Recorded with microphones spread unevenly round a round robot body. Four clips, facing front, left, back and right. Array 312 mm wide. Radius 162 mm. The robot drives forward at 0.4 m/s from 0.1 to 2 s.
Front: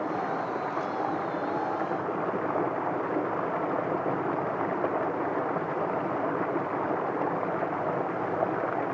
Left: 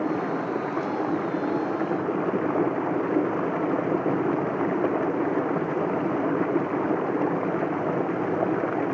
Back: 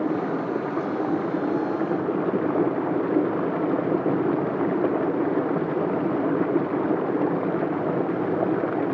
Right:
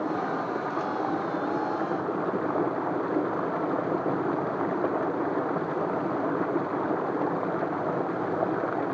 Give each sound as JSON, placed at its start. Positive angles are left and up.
{"t": 0.0, "sound": "running water", "azimuth_deg": 160}